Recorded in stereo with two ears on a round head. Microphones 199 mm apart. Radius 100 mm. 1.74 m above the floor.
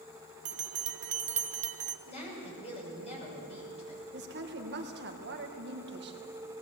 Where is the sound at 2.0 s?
30° left (ahead or behind), 6 m.